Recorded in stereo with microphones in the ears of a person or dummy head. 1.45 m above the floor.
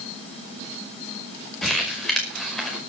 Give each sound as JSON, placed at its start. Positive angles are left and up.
{"t": 1.6, "sound": "crumpling", "side_deg": 5, "distance_m": 5.0}